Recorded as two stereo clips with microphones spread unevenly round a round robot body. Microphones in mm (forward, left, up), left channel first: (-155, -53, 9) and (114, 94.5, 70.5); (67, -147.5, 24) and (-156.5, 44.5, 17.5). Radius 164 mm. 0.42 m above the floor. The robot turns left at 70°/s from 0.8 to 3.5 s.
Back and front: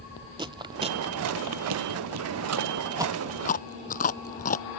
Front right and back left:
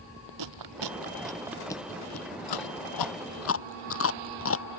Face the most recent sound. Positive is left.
turn(degrees=-85)